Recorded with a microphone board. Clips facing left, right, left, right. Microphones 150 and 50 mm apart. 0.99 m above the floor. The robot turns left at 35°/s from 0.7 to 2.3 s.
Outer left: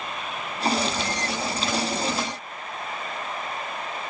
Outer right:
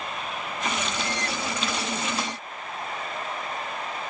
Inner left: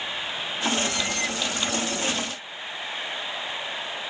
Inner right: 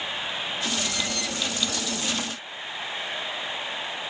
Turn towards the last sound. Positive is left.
No sound to turn to.